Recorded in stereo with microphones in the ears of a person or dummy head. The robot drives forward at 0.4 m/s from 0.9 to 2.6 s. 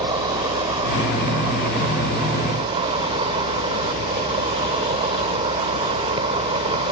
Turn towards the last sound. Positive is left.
turn(degrees=-30)  # may be behind; listen again after turning